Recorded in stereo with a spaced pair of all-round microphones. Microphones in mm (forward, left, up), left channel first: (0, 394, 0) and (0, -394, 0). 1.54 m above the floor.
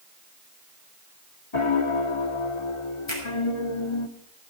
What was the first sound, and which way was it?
A piano, 40° left (ahead or behind).